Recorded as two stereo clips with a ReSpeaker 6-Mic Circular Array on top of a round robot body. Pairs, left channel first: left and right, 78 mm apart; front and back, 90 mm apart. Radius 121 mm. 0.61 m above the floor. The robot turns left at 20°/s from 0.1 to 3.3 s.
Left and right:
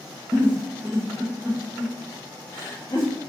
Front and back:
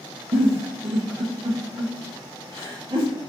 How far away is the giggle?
About 0.7 m.